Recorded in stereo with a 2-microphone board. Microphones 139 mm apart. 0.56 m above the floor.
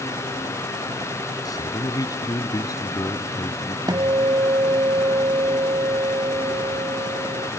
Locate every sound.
1.4 s a man speaking: 25° left (ahead or behind)
3.9 s a guitar: 30° right (ahead or behind)